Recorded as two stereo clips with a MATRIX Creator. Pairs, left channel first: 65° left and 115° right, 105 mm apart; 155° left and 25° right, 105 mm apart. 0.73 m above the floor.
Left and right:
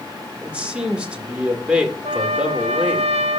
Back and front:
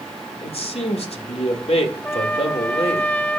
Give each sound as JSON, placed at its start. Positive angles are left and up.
{"t": 0.4, "sound": "a man speaking", "azimuth_deg": 170, "distance_m": 2.0}
{"t": 2.0, "sound": "a trumpet", "azimuth_deg": -130, "distance_m": 0.7}